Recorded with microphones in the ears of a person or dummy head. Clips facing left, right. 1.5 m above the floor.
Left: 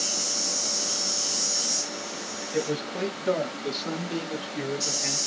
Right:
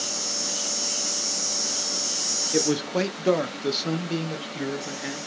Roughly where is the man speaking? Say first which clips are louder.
Right 5 dB; right.